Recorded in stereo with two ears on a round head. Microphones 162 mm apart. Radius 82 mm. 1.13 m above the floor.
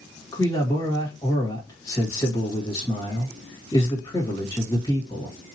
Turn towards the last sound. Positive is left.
turn(degrees=20)  # may be behind; listen again after turning